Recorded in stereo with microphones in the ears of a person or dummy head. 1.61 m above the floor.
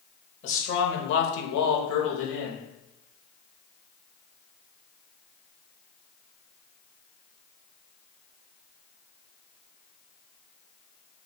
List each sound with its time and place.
0.4 s a man speaking: 40° left (ahead or behind), 0.9 m; by 2.7 s 60° left (ahead or behind), 1.1 m